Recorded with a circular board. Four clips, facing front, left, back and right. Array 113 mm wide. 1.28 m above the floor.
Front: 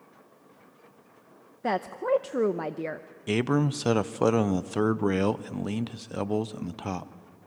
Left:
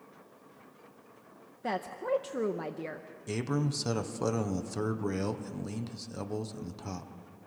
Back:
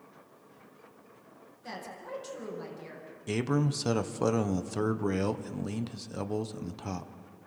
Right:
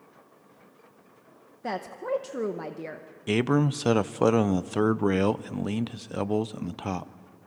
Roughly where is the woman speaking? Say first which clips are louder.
Right 1 dB, front 15 dB; ahead.